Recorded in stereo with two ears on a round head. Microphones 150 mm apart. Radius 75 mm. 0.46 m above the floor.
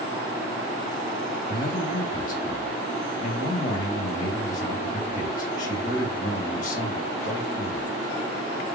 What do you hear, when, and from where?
1.5 s a man speaking: 50° left (ahead or behind), 2 m